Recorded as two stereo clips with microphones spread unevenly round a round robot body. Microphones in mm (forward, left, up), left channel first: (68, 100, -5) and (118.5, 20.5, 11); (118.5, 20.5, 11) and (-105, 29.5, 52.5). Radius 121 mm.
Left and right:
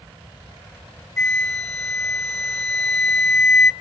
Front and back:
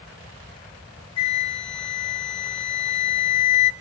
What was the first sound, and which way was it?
A flute, 65° left.